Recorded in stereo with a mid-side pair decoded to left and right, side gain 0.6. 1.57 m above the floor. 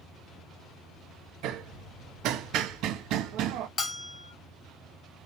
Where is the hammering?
65° right, 0.8 m.